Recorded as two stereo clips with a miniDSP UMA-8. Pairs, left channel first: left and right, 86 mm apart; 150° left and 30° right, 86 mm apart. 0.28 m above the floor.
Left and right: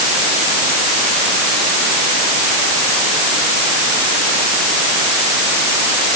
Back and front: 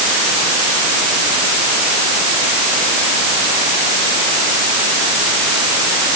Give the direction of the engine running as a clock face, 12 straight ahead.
No engine running in this recording.